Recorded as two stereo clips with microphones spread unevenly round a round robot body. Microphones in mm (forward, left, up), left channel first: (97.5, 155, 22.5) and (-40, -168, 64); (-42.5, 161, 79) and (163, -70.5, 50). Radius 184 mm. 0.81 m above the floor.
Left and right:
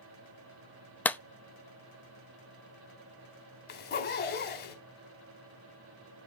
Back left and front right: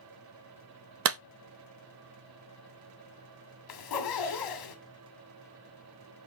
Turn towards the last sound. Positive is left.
turn(degrees=130)